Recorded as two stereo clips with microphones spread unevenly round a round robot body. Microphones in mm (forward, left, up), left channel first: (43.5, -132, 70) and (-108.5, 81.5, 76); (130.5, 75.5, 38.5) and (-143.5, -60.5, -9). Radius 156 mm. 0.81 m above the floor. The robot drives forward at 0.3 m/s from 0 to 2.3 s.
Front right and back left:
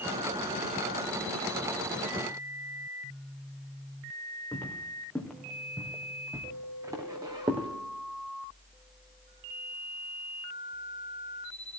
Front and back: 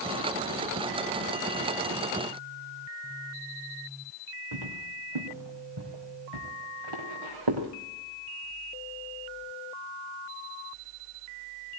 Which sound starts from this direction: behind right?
Footsteps, at 4.5 s.